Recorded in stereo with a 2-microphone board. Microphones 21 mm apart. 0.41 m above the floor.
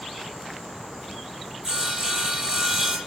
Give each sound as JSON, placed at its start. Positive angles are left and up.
{"t": 1.6, "sound": "sawing", "side_deg": -25, "distance_m": 5.5}